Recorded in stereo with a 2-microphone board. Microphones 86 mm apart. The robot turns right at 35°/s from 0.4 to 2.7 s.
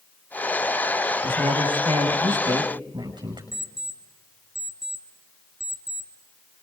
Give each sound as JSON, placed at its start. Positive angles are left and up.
{"t": 1.2, "sound": "a man speaking", "azimuth_deg": -110, "distance_m": 6.5}
{"t": 3.5, "sound": "an alarm clock", "side_deg": -5, "distance_m": 1.8}